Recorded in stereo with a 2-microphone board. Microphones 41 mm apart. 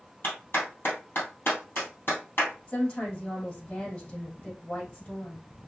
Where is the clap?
60° left (ahead or behind), 2.5 m.